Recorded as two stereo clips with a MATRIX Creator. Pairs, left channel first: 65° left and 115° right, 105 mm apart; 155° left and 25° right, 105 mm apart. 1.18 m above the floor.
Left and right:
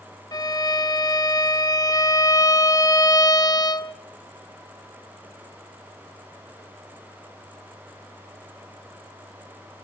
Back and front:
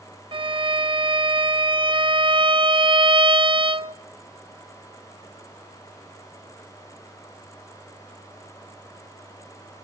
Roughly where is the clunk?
I don't hear a clunk.